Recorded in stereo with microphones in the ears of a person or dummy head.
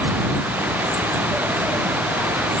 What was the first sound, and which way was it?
Only background noise.